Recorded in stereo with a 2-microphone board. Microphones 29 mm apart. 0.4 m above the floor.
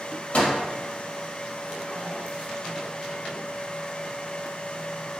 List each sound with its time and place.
0.3 s a microwave: 55° left (ahead or behind), 1.5 m